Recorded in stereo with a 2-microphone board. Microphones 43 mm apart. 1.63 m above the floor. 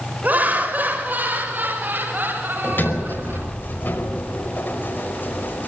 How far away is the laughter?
About 6.5 m.